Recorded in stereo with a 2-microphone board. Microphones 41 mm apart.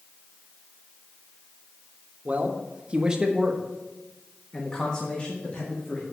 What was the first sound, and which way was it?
A man speaking, 35° right (ahead or behind).